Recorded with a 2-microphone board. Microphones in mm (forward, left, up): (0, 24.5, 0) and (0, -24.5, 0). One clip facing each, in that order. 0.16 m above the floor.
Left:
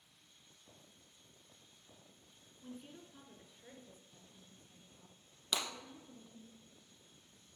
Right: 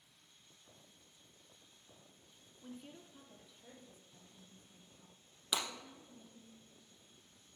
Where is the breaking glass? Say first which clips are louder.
Even; 5° right (ahead or behind), 2 m.